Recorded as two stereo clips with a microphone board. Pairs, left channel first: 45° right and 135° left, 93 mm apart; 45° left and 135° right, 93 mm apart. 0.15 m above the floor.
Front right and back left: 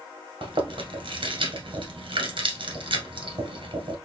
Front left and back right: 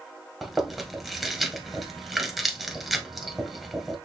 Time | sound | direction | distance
0.4 | chewing | 140° left | 1.4 m